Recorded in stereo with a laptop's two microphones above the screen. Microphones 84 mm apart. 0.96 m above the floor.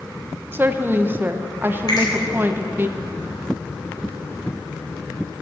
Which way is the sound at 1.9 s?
55° left (ahead or behind).